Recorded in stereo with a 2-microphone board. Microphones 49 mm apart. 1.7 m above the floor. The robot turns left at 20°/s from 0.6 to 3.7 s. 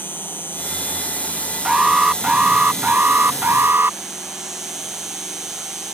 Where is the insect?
50° left; by 5.9 s 10° right.